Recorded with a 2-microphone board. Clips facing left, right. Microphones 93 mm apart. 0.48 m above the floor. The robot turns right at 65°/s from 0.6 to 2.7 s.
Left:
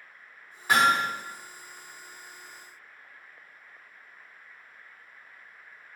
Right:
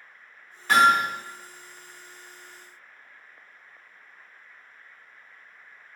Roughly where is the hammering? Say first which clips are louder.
Right 4 dB; centre.